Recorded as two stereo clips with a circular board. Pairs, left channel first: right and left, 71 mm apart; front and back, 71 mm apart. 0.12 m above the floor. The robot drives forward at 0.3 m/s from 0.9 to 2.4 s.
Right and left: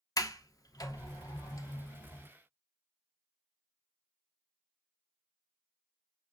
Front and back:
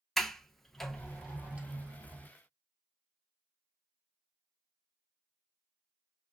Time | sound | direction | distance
0.2 | a sliding door | 85° right | 0.6 m